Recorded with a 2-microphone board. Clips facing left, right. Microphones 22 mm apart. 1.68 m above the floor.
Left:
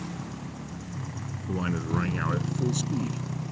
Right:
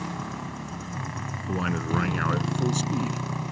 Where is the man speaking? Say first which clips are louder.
Right 2 dB; 20° right (ahead or behind).